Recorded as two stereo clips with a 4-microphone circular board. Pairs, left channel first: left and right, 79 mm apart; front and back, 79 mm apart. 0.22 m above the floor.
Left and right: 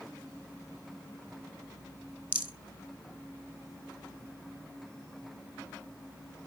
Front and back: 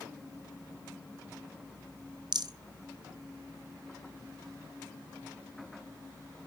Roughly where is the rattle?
Behind left.